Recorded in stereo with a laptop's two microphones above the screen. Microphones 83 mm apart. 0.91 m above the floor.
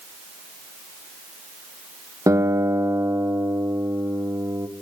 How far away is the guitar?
About 0.9 m.